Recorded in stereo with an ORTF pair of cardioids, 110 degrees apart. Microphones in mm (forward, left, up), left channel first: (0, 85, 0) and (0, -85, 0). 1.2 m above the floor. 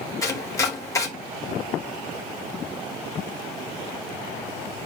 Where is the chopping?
15° left, 4.5 m.